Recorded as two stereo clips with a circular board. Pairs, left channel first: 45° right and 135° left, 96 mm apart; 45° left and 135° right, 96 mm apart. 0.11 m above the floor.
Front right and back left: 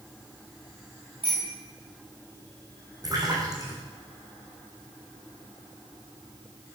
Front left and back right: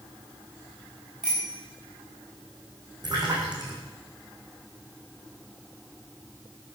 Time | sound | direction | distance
1.2 | a bicycle bell | 145° left | 8 m
3.0 | a splash | 175° right | 4.5 m